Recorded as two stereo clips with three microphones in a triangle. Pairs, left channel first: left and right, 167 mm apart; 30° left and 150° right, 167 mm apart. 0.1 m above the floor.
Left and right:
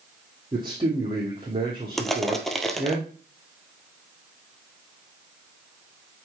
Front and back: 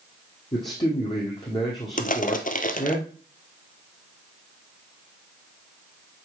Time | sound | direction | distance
0.5 | a man speaking | 30° right | 2.5 m
2.0 | crushing | straight ahead | 1.0 m